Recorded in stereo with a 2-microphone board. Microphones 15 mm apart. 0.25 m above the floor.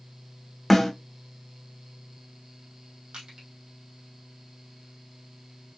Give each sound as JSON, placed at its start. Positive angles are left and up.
{"t": 0.7, "sound": "a snare drum", "side_deg": 0, "distance_m": 1.5}
{"t": 3.1, "sound": "crushing", "side_deg": -85, "distance_m": 2.5}